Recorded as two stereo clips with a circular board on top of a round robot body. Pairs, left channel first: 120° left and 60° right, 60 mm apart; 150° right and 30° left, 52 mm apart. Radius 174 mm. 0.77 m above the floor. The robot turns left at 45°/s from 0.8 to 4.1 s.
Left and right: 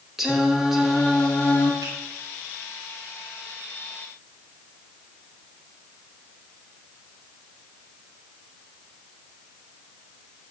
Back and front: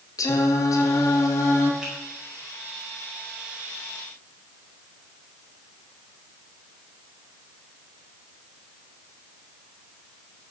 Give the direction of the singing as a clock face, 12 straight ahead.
5 o'clock.